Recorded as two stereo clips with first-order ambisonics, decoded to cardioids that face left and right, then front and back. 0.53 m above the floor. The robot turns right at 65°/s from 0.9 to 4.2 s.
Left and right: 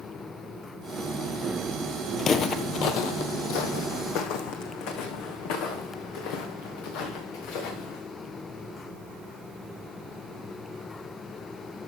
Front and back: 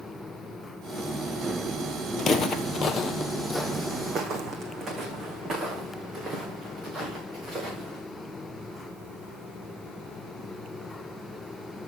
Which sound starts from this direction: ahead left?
Footsteps, at 2.2 s.